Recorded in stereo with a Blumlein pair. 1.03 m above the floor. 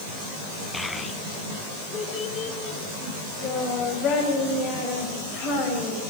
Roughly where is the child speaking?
Ahead.